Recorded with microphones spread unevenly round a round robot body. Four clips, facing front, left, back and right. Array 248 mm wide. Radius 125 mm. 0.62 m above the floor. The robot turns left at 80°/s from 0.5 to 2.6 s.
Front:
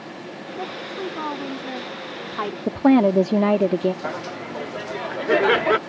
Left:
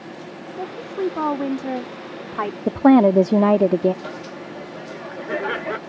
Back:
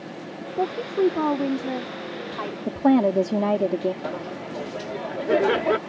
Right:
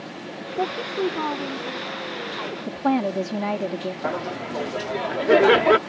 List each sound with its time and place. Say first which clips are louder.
0.6 s a woman speaking: right 1 dB, back 9 dB; 150° right; by 2.6 s 50° left
2.7 s a woman speaking: left 10 dB, front 3 dB; 70° left
4.0 s laughter: right 5 dB, front 1 dB; 80° right